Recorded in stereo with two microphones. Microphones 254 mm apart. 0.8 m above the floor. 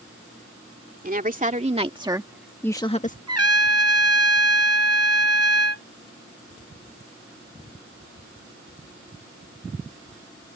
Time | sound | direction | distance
1.0 | a woman speaking | 35° right (ahead or behind) | ?
3.3 | a trumpet | 80° right | ?